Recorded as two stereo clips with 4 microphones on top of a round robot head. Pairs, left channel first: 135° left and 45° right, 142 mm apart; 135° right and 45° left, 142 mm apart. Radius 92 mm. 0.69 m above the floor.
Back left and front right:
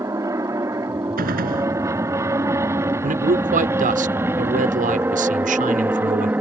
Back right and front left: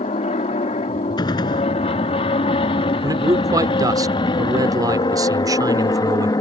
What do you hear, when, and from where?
0.0 s an aircraft: 105° right; by 6.4 s 110° right
1.2 s a gunshot: 70° right
3.0 s a man speaking: 20° right